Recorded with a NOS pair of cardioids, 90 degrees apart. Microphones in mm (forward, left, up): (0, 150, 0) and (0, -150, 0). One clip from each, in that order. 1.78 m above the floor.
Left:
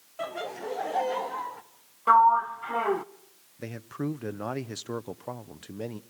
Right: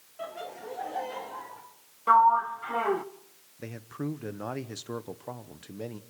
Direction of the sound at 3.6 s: 15° left.